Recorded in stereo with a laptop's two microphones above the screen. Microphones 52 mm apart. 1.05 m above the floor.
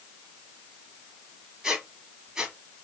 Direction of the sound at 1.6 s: 10° right (ahead or behind).